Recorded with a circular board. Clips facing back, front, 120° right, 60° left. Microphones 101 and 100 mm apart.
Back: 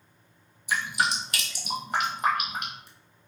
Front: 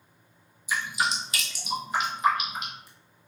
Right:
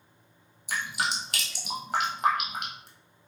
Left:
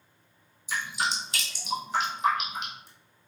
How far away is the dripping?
About 1.0 m.